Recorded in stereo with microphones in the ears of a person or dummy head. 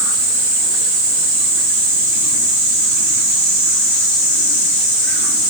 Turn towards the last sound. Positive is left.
No sound to turn to.